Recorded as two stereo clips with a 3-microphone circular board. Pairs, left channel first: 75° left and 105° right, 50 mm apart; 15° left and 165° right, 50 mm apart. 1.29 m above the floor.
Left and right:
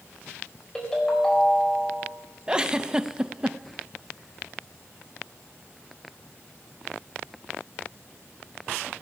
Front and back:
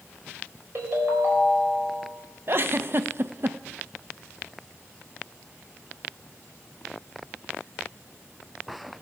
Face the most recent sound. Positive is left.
turn(degrees=-170)